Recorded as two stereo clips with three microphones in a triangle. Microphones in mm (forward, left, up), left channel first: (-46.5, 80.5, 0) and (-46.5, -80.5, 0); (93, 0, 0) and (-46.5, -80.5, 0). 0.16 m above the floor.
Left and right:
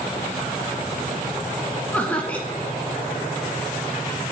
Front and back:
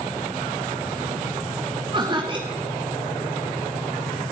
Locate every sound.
1.9 s laughter: 165° left, 1.4 m